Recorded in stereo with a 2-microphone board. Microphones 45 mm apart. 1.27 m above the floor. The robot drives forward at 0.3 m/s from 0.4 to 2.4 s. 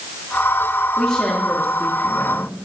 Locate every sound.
1.0 s a woman speaking: 10° left (ahead or behind), 3 m